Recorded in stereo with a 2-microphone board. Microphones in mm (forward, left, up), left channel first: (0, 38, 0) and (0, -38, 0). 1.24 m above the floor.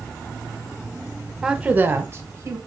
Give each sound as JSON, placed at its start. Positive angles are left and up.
{"t": 1.4, "sound": "a woman speaking", "side_deg": -10, "distance_m": 0.6}